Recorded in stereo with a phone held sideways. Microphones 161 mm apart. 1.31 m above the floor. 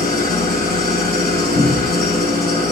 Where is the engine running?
80° left, 4.5 m.